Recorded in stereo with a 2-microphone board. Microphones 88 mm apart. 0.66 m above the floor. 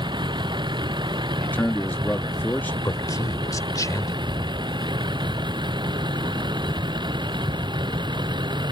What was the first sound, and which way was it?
A vehicle, 60° right (ahead or behind).